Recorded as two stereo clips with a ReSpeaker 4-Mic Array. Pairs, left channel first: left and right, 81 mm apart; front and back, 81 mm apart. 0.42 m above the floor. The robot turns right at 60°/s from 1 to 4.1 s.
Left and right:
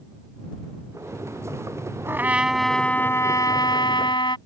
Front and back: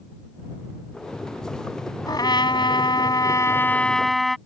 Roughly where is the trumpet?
Ahead right.